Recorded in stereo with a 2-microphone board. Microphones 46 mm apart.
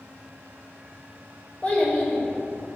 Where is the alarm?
No alarm in this recording.